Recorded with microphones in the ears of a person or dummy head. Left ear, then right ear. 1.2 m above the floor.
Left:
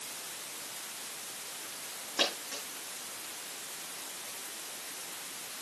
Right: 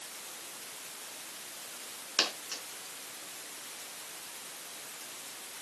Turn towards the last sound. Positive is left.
turn(degrees=-75)  # may be behind; listen again after turning